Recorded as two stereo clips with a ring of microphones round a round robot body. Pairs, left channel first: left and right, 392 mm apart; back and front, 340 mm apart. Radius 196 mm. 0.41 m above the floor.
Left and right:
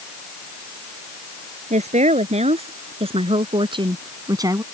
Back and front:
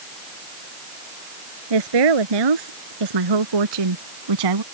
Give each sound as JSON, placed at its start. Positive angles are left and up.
{"t": 1.7, "sound": "a woman speaking", "azimuth_deg": -15}